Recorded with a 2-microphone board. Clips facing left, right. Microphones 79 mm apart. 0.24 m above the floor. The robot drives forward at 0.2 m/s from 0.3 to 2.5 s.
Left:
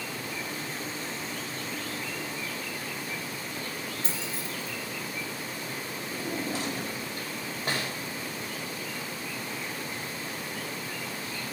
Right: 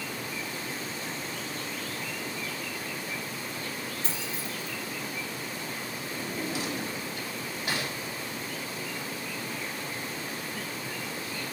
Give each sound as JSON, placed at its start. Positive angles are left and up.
{"t": 4.0, "sound": "keys jangling", "side_deg": 35, "distance_m": 4.5}
{"t": 6.1, "sound": "a drawer", "side_deg": 40, "distance_m": 5.5}